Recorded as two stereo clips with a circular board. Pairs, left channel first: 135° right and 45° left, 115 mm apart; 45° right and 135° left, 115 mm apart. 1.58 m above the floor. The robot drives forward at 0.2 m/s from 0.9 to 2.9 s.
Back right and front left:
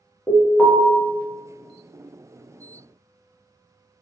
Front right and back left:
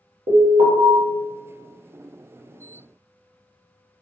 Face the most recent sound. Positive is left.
turn(degrees=155)